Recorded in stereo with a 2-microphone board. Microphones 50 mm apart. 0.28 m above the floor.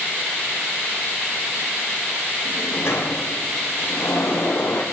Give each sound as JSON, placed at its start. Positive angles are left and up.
{"t": 2.5, "sound": "a sliding door", "side_deg": 60, "distance_m": 5.0}